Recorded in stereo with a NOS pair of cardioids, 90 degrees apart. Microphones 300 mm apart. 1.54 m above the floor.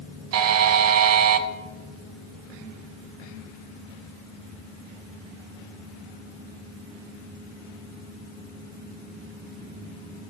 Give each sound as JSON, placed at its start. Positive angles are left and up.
{"t": 0.3, "sound": "a buzzer", "azimuth_deg": -55, "distance_m": 0.6}